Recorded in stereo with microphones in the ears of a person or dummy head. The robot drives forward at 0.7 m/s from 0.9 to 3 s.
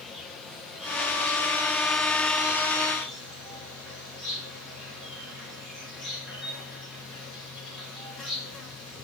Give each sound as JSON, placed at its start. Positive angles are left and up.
{"t": 0.0, "sound": "an insect", "side_deg": 0, "distance_m": 1.3}